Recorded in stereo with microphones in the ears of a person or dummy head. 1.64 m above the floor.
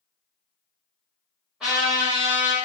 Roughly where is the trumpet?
Centre.